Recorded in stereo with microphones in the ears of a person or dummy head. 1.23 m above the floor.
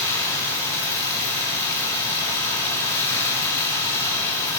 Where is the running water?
20° left (ahead or behind), 1.4 m.